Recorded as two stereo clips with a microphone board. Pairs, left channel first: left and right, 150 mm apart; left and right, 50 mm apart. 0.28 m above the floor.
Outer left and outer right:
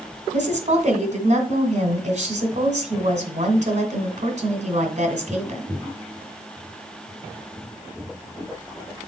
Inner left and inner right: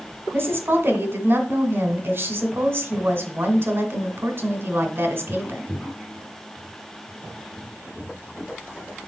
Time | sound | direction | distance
0.3 | a woman speaking | 55° right (ahead or behind) | 2.0 m